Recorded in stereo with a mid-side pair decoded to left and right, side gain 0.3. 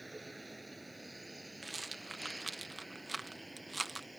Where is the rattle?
30° right.